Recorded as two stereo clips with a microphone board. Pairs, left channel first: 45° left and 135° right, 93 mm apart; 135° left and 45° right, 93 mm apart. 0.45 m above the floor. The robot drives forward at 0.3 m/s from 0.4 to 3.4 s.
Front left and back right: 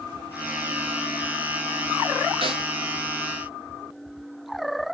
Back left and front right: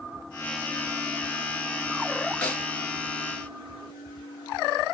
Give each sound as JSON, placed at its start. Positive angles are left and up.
{"t": 2.4, "sound": "a snare drum", "azimuth_deg": -155, "distance_m": 2.5}